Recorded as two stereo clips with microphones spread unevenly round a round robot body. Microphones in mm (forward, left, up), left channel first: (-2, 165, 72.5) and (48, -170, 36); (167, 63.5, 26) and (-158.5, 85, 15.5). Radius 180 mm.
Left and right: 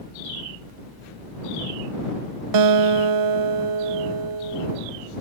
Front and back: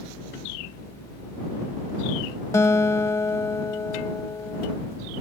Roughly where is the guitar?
Right.